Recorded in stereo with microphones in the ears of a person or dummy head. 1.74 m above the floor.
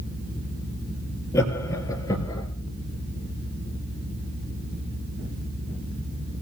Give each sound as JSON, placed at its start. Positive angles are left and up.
{"t": 1.3, "sound": "laughter", "side_deg": 10, "distance_m": 4.0}